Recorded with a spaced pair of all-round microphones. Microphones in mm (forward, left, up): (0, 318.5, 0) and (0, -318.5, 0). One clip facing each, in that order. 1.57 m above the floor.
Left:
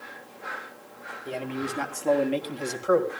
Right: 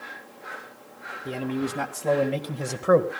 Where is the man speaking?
55° right (ahead or behind), 2.5 m; by 3.1 s 75° right (ahead or behind), 1.6 m.